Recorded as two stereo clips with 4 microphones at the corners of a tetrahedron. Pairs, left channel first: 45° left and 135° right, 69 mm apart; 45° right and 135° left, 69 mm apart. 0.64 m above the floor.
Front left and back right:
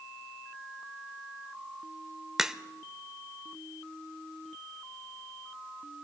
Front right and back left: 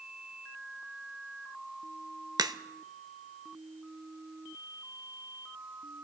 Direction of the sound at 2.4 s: 145° left.